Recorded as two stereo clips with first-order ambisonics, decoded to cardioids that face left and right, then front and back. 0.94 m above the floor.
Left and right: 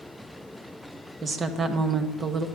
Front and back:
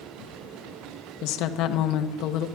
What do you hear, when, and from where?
1.2 s a woman speaking: 20° right, 1.2 m